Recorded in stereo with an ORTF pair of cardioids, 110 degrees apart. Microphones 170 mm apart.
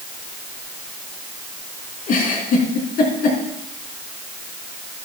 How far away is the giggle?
About 4.5 m.